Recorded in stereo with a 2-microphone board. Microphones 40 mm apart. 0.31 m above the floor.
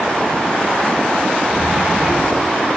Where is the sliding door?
30° right (ahead or behind), 5 m.